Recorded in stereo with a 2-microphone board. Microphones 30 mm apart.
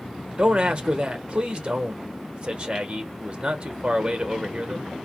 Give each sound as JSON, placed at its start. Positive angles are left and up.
{"t": 0.4, "sound": "a man speaking", "side_deg": -35, "distance_m": 0.8}